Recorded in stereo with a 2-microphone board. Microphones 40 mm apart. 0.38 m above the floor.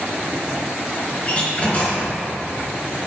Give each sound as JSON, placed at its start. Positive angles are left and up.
{"t": 1.2, "sound": "a door slam", "side_deg": 35, "distance_m": 3.5}